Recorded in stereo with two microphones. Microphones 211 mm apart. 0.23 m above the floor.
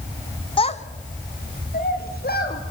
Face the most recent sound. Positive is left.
turn(degrees=50)  # may be behind; listen again after turning